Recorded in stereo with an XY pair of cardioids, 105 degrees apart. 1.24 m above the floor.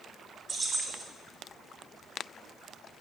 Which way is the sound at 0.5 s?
30° right.